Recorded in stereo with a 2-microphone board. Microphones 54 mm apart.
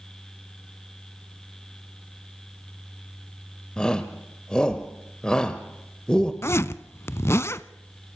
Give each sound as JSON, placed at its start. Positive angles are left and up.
{"t": 3.8, "sound": "a shout", "side_deg": 15, "distance_m": 1.2}
{"t": 6.4, "sound": "a zipper", "side_deg": 50, "distance_m": 0.7}